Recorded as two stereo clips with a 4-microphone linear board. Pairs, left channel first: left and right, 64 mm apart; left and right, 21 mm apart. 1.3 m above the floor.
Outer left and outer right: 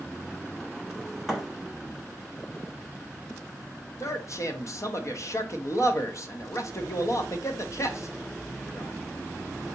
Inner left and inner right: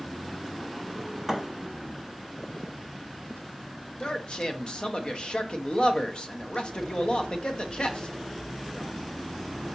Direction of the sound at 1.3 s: Centre (ahead or behind).